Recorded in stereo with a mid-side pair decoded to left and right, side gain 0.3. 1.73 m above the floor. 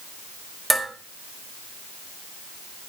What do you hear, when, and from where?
0.7 s dishes clattering: 20° right, 5 m